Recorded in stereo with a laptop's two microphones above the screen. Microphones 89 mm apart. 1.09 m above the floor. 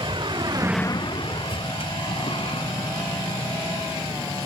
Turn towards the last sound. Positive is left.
turn(degrees=90)